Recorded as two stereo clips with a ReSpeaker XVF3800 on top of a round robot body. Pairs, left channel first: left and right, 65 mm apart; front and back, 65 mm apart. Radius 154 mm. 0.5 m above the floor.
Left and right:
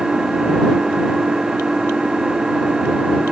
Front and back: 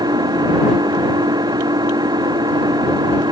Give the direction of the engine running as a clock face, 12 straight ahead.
6 o'clock.